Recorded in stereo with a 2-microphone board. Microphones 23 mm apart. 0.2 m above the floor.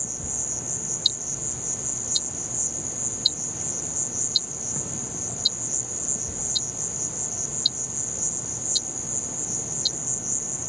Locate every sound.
0.0 s an insect: 5° right (ahead or behind)
1.1 s ticking: 20° right (ahead or behind)